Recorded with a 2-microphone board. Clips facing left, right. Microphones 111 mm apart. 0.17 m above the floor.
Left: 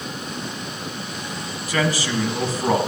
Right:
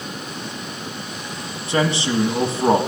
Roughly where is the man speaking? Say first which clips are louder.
Right 3 dB; right.